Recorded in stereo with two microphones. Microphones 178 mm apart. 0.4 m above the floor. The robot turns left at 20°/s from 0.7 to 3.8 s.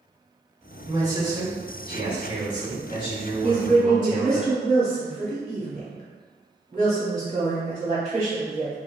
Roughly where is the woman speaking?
Right.